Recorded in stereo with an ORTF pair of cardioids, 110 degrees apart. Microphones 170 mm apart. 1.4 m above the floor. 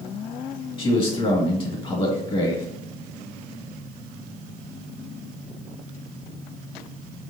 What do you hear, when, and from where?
0.8 s a man speaking: 30° left, 2.0 m